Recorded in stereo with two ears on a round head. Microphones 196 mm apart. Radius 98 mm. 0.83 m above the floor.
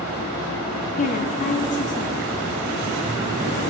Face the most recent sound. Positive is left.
turn(degrees=35)  # may be behind; listen again after turning